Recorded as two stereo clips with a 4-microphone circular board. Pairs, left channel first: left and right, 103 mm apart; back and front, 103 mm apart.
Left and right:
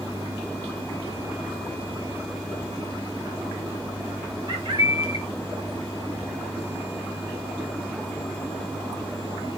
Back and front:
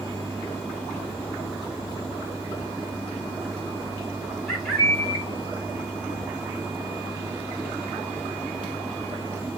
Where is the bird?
85° right, 2 m.